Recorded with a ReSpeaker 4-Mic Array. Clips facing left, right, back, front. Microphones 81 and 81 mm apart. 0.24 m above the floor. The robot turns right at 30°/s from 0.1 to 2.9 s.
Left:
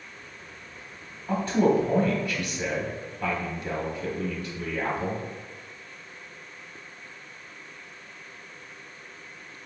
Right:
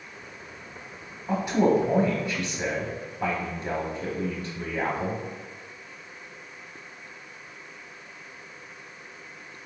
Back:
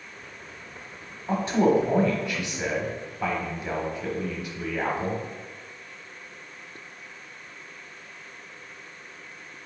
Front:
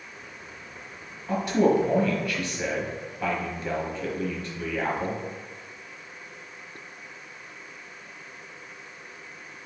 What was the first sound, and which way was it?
A man speaking, 160° right.